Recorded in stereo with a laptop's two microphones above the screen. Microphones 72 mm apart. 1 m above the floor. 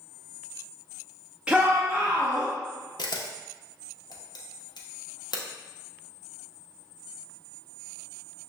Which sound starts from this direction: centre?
A shout, at 1.5 s.